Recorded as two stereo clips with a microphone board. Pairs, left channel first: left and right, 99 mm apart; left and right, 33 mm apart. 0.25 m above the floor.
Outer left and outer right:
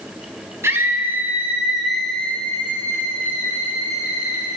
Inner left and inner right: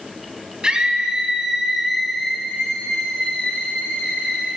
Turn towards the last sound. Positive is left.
turn(degrees=35)  # may be behind; listen again after turning